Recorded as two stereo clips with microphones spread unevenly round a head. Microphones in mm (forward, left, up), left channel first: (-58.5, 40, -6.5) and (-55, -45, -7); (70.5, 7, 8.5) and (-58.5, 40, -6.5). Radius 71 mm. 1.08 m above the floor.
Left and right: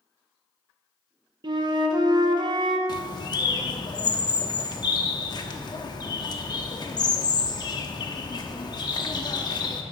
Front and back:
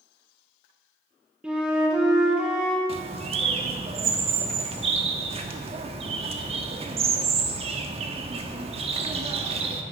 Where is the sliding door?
I don't hear a sliding door.